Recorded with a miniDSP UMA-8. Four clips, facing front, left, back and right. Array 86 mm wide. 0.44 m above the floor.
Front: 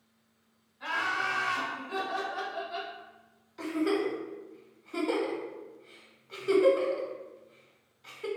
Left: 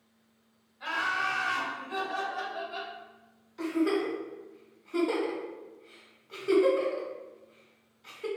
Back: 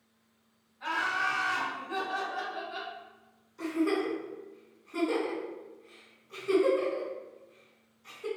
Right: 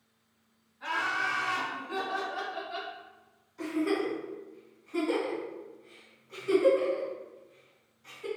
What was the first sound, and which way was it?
Laughter, 60° left.